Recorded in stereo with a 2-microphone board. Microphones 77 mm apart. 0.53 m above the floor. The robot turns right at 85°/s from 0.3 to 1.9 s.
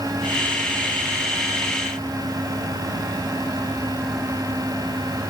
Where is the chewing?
No chewing in this recording.